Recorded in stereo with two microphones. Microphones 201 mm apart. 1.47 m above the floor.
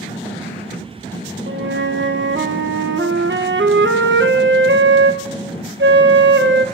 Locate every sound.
1.5 s a flute: 65° right (ahead or behind), 1.0 m